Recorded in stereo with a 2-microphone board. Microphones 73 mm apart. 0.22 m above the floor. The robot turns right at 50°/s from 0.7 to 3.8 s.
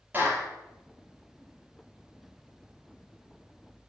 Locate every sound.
0.1 s a clap: 30° right (ahead or behind), 4.5 m